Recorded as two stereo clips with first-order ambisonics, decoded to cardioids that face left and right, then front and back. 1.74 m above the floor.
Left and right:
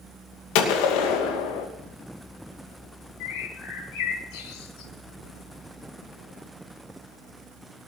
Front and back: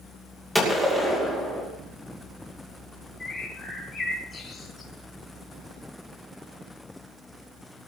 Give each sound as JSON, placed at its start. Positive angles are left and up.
{"t": 0.6, "sound": "a gunshot", "azimuth_deg": 95, "distance_m": 2.5}
{"t": 3.2, "sound": "a bird", "azimuth_deg": 75, "distance_m": 4.0}